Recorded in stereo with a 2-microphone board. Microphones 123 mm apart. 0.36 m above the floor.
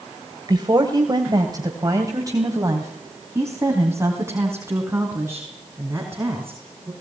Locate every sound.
0.5 s a woman speaking: 35° right (ahead or behind), 2.0 m; by 6.9 s 15° right (ahead or behind), 5.5 m